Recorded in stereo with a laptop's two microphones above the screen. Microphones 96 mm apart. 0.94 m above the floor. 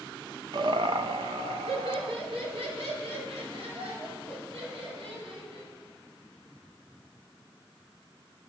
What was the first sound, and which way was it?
Laughter, 45° right (ahead or behind).